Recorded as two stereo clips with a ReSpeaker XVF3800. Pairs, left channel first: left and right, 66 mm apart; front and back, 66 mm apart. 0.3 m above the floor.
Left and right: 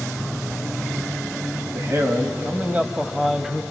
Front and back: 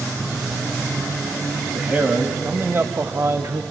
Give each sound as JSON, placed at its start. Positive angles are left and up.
{"t": 1.7, "sound": "a man speaking", "azimuth_deg": -110, "distance_m": 1.6}